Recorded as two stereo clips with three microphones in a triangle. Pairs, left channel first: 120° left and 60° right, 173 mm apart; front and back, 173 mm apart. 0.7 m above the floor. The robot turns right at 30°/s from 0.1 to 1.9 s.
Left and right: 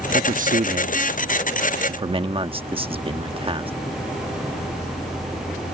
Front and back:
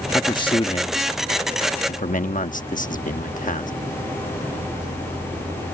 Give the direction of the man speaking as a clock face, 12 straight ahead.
2 o'clock.